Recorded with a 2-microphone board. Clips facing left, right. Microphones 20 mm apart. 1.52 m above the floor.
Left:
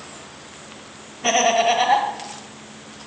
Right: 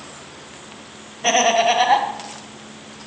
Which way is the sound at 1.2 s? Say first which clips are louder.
Right 1 dB; 5° right (ahead or behind).